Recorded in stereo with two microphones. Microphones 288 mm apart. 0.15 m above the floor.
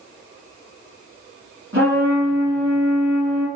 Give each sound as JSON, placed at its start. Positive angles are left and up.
{"t": 1.7, "sound": "a trumpet", "side_deg": -45, "distance_m": 1.8}